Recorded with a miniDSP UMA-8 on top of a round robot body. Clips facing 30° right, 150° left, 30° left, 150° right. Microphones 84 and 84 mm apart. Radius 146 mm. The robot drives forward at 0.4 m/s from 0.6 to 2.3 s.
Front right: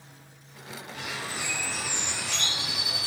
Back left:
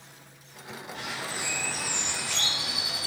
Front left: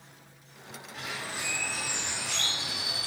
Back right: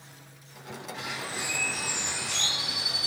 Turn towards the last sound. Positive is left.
turn(degrees=135)